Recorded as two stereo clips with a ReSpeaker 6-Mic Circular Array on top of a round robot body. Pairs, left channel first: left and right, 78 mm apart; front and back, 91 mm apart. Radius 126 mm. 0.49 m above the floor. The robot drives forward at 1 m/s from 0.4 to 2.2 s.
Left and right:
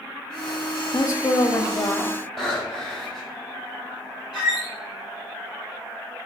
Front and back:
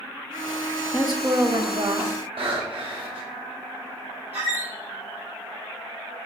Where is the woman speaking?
75° left, 0.8 m; by 2.1 s 160° left, 1.4 m.